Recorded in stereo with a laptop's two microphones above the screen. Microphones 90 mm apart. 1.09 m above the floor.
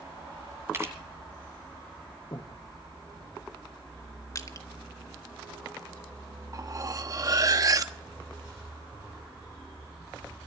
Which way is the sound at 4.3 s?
35° left (ahead or behind).